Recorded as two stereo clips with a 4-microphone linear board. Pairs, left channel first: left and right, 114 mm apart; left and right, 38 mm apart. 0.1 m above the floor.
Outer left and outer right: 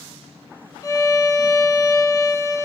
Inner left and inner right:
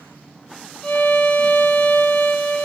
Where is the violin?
35° left (ahead or behind), 0.8 m.